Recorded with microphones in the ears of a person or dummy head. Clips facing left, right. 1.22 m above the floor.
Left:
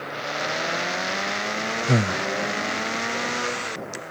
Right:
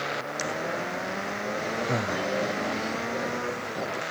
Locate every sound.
1.9 s breathing: 35° left (ahead or behind)